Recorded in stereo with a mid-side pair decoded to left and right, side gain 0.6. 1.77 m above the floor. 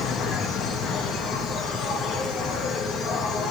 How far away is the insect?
About 3 m.